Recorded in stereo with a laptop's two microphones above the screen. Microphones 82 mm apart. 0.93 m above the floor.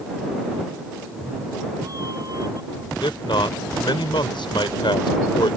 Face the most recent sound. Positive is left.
turn(degrees=85)